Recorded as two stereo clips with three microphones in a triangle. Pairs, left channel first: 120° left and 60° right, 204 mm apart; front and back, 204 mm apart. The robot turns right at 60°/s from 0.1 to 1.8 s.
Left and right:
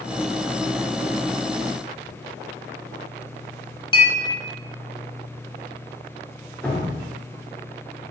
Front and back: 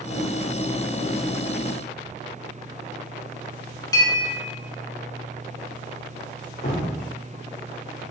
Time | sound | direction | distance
3.9 | a clink | 65° left | 1.0 m
6.6 | dripping | 35° left | 0.8 m